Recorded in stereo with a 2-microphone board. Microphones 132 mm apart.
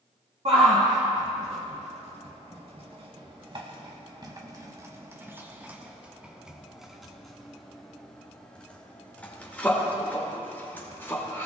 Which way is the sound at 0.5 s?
60° right (ahead or behind).